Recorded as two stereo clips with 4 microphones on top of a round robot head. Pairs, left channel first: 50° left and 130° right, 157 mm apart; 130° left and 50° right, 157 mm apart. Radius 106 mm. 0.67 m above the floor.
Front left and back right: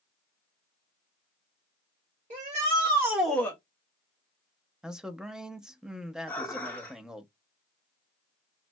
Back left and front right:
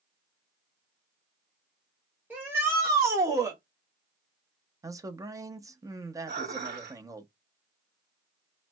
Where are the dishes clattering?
25° right, 0.9 m.